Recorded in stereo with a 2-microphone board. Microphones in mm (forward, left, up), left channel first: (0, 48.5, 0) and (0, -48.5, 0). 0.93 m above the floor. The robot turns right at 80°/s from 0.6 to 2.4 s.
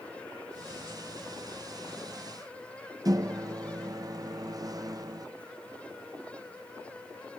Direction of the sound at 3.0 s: 40° right (ahead or behind).